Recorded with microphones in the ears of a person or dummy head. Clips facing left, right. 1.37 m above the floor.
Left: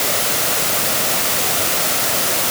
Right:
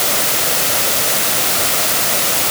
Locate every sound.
Only background noise.